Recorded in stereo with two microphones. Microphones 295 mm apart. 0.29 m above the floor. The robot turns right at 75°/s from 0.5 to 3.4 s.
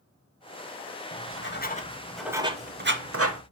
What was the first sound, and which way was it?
Writing, 50° left (ahead or behind).